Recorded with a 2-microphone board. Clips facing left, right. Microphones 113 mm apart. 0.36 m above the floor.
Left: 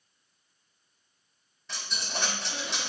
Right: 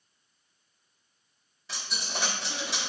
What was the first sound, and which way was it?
A dropped coin, 5° right (ahead or behind).